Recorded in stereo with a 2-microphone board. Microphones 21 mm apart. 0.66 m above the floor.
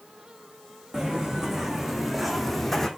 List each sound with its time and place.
0.9 s footsteps: 20° right (ahead or behind), 2 m; by 2.9 s 20° left (ahead or behind), 1.3 m